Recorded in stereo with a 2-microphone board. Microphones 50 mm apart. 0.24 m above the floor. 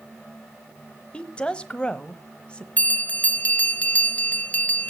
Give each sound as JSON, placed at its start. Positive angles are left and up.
{"t": 1.1, "sound": "a woman speaking", "side_deg": 20, "distance_m": 1.0}
{"t": 2.8, "sound": "a bell", "side_deg": 25, "distance_m": 0.7}